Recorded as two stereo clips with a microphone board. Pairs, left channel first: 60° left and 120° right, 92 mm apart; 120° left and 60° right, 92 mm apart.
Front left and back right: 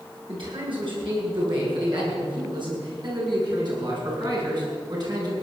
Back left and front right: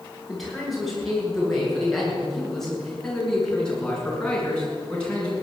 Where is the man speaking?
150° right, 8 m; by 5.3 s 165° right, 6 m.